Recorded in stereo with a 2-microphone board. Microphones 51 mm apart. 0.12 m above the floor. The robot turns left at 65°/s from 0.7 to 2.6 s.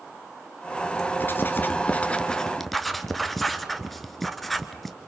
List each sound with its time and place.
1.2 s writing: 40° left (ahead or behind), 1.1 m; by 5.0 s 5° left (ahead or behind), 1.1 m